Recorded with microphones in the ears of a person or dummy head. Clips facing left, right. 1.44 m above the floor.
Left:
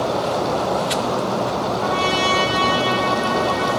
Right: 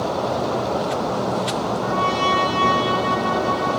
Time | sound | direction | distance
1.8 | a trumpet | 55° left (ahead or behind) | 1.8 m